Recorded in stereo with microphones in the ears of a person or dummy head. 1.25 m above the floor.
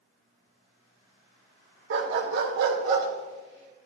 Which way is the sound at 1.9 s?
65° right (ahead or behind).